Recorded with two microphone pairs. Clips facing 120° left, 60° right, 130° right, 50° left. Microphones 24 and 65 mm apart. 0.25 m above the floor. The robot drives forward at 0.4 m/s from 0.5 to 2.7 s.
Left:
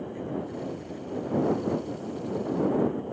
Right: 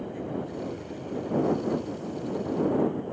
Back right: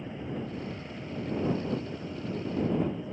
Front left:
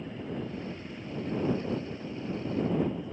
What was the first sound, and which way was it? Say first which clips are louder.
An aircraft: even, even; 90° right.